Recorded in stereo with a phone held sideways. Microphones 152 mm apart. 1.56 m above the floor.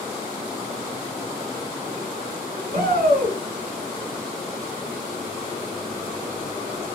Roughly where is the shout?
Right.